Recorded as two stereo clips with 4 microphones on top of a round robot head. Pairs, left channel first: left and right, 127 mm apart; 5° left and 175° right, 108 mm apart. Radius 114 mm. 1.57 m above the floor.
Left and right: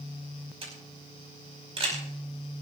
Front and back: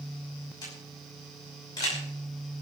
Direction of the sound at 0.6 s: 50° right.